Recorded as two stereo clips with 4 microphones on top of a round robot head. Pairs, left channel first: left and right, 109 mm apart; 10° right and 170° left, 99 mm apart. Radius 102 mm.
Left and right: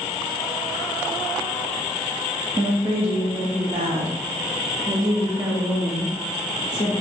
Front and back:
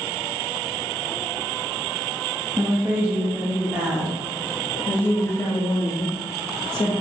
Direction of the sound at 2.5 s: 110° right.